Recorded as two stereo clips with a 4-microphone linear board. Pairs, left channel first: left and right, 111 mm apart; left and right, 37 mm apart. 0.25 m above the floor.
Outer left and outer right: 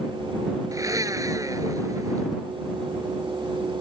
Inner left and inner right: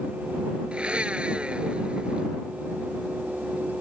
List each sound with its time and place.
0.7 s a blender: 30° right (ahead or behind)